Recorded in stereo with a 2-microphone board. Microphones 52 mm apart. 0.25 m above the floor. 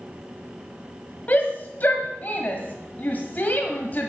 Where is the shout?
35° left (ahead or behind), 1.3 m.